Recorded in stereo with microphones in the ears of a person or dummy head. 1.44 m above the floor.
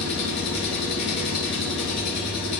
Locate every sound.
0.0 s an engine running: 60° left (ahead or behind), 1.7 m